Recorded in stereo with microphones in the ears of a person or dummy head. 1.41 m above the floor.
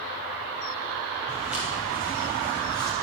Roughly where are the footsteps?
Centre.